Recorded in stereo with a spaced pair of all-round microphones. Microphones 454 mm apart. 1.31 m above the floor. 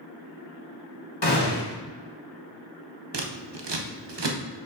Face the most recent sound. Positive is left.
turn(degrees=-65)  # may be behind; listen again after turning